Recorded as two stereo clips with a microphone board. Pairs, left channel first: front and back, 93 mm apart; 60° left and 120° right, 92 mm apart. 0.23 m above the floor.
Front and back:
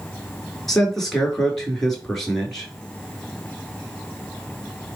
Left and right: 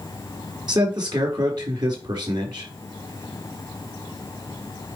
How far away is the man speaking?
About 4 m.